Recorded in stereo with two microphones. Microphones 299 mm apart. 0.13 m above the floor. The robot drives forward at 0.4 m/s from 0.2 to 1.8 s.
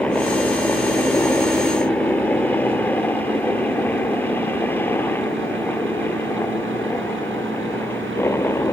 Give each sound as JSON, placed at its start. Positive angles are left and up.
{"t": 0.0, "sound": "a helicopter", "side_deg": 5}